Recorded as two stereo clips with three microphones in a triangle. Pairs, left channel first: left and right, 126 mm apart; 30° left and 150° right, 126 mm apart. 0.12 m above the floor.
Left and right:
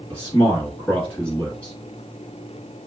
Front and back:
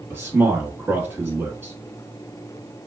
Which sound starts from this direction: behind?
A man speaking, at 0.1 s.